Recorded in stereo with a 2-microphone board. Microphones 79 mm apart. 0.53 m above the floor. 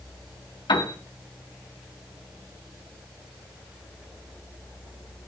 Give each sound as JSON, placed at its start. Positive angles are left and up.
{"t": 0.7, "sound": "a piano", "side_deg": 80, "distance_m": 2.5}